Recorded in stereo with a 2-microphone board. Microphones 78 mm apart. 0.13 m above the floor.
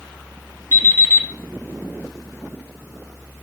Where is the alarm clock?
30° left (ahead or behind), 2 m.